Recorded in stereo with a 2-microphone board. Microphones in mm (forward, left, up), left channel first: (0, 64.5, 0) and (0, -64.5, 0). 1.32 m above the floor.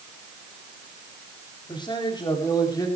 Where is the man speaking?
35° left (ahead or behind), 3.5 m; by 2.9 s 30° left (ahead or behind), 4 m.